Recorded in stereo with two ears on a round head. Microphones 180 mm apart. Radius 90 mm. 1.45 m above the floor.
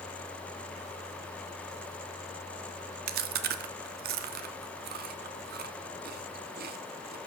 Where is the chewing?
50° right (ahead or behind), 0.7 m.